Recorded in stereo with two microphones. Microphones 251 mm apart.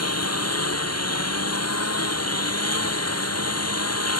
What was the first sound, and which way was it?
A lawn mower, 80° left.